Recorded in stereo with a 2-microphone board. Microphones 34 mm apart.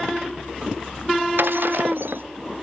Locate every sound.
1.4 s breaking glass: 75° right (ahead or behind)